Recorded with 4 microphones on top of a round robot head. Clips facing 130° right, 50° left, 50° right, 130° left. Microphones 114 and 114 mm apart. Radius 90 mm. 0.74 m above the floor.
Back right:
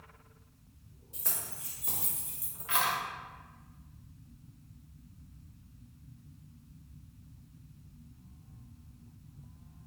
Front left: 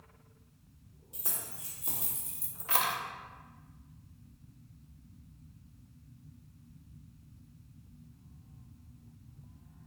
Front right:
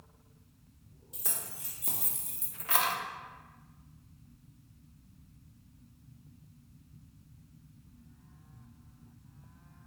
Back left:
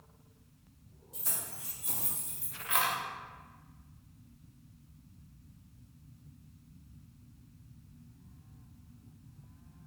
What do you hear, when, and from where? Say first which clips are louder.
1.1 s keys jangling: back right 1 dB, front right 1 dB; 25° right, 1.5 m; by 3.0 s 10° left, 0.5 m